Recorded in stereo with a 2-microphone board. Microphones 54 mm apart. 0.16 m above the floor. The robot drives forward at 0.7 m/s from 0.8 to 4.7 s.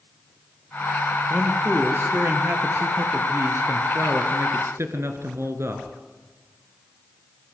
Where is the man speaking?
35° right (ahead or behind), 3.5 m; by 6.0 s 55° right (ahead or behind), 2.5 m.